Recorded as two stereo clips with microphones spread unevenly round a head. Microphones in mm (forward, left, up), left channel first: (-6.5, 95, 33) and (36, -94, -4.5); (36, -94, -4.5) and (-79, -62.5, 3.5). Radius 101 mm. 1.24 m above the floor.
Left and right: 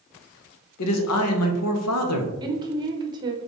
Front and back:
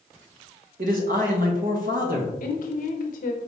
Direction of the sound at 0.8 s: 120° left.